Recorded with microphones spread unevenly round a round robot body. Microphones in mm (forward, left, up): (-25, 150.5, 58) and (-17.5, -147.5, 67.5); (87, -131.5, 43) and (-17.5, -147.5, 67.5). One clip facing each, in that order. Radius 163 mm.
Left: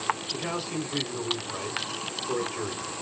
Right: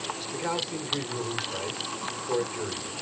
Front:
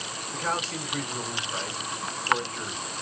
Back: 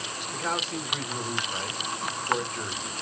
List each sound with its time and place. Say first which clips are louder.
0.3 s a man speaking: even, front 1 dB; 110° left, 1.4 m